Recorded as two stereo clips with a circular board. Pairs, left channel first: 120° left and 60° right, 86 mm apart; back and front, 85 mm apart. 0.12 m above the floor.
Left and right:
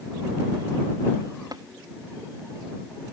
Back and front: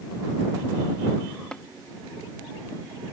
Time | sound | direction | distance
1.5 | tapping | 100° right | ?